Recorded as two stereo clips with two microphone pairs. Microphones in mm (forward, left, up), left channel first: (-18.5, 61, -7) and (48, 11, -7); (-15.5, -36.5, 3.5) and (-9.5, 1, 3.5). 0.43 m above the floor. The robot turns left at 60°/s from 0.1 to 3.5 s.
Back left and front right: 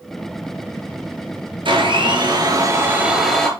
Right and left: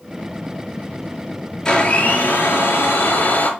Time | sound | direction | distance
1.6 | a blender | 30° right | 4.5 m